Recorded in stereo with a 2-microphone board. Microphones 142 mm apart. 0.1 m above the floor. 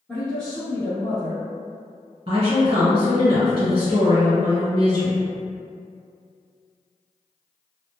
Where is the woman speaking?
35° right (ahead or behind), 1.9 m.